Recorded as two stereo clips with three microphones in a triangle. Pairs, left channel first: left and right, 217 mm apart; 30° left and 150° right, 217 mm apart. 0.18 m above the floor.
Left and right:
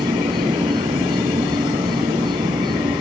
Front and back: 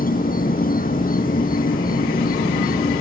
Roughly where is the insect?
Ahead.